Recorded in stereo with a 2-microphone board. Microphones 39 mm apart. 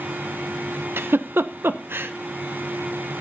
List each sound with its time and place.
1.0 s a giggle: 70° right (ahead or behind), 0.8 m